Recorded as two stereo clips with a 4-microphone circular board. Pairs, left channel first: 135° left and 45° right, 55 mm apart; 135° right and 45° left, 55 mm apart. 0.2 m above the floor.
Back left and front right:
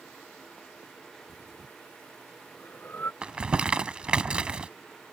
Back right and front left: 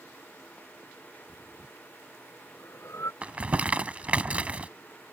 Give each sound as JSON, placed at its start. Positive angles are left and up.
{"t": 1.3, "sound": "breathing", "azimuth_deg": -170}
{"t": 3.2, "sound": "crumpling", "azimuth_deg": 10}